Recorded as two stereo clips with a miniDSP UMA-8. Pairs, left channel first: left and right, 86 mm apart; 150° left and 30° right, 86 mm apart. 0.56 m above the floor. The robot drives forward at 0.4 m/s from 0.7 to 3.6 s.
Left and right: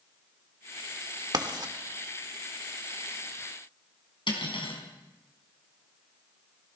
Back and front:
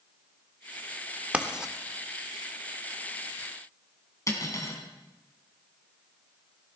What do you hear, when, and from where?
1.3 s writing: 105° right, 1.2 m; by 1.7 s 110° right, 1.2 m
4.3 s cutlery clinking: 100° left, 3.5 m